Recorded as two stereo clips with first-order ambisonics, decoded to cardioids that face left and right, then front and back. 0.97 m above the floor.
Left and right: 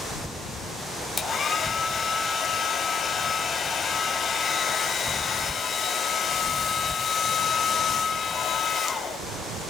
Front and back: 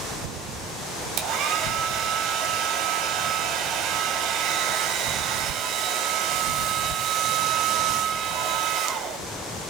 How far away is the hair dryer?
About 1.2 m.